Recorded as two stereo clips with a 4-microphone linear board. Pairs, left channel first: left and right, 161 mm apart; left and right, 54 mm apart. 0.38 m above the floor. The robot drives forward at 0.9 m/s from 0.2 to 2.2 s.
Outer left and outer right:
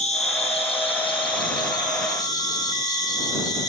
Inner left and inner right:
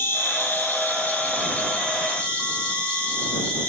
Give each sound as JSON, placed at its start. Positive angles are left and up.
{"t": 0.0, "sound": "an insect", "side_deg": 45, "distance_m": 2.0}